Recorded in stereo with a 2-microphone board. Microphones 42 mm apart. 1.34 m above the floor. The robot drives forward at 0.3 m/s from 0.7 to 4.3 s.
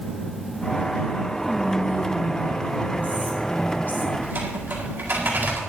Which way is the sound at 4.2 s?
60° right (ahead or behind).